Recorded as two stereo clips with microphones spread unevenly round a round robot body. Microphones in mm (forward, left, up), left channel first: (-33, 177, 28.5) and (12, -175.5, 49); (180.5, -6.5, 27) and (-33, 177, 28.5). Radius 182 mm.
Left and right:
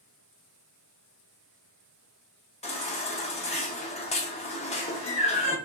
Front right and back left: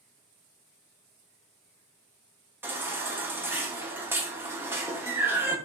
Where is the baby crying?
65° left, 0.7 m.